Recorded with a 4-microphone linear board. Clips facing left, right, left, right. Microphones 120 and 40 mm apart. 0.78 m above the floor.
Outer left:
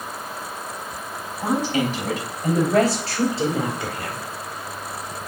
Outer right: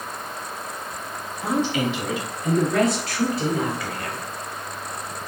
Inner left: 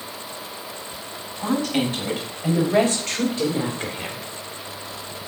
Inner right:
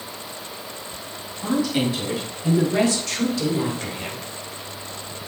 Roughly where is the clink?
No clink in this recording.